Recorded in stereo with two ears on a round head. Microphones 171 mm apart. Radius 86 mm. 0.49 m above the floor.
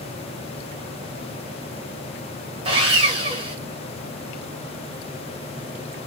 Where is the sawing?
30° right (ahead or behind), 2.5 m.